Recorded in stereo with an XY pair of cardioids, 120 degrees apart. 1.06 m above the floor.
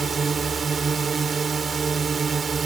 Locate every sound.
0.0 s a drone: 35° right